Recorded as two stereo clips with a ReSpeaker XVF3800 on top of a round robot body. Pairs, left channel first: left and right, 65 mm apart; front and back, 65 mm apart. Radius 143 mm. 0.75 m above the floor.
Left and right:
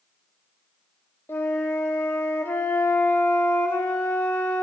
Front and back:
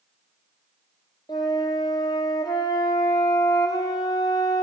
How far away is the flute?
About 0.5 m.